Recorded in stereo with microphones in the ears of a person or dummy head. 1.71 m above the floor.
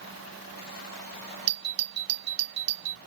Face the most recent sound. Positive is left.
turn(degrees=-30)  # may be behind; listen again after turning